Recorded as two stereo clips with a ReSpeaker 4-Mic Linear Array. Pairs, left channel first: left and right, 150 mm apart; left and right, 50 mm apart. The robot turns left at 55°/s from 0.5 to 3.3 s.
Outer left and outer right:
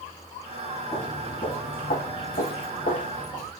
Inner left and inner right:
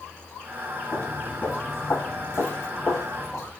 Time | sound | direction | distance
0.9 | footsteps | 15° left (ahead or behind) | 2.5 m